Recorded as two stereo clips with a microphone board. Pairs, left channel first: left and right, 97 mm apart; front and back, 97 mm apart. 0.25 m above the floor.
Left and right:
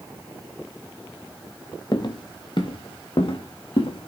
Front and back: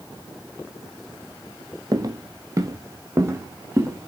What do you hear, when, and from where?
1.9 s footsteps: 130° left, 2 m; by 4.1 s 115° left, 5 m